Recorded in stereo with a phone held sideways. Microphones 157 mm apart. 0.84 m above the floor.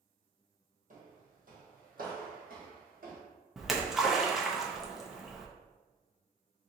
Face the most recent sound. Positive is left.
turn(degrees=0)  # may be behind; listen again after turning